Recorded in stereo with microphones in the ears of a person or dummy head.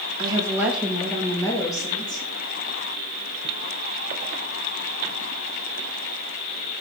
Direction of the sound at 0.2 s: 30° right (ahead or behind).